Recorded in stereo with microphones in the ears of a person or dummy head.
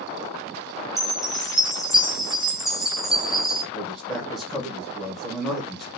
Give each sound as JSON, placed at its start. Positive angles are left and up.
{"t": 1.0, "sound": "a chime", "side_deg": -5, "distance_m": 0.6}
{"t": 3.7, "sound": "a man speaking", "side_deg": 5, "distance_m": 1.2}